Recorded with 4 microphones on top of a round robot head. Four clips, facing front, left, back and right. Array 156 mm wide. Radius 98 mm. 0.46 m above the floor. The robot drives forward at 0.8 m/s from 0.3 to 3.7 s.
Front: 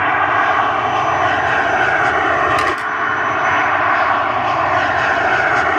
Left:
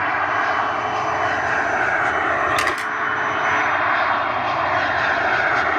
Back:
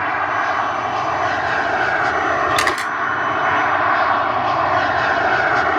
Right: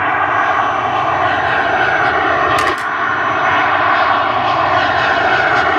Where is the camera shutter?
Straight behind.